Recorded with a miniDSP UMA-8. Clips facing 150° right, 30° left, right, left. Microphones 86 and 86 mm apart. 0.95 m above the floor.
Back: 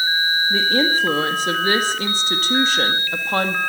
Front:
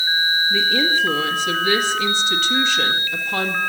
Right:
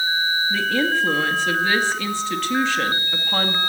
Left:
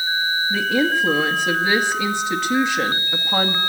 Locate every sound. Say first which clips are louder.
0.5 s a woman speaking: back 2 dB, left 3 dB; 165° left, 1.9 m